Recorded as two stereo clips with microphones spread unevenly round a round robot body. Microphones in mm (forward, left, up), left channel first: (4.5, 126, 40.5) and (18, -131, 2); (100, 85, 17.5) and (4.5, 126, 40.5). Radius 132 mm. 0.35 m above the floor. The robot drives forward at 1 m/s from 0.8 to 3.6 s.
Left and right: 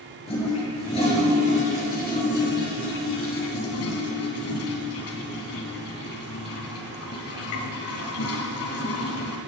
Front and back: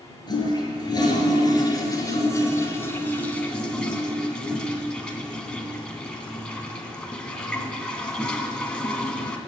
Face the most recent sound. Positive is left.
turn(degrees=55)